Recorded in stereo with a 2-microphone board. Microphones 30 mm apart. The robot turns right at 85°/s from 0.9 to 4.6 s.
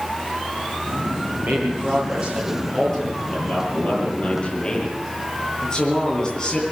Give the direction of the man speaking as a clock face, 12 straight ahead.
4 o'clock.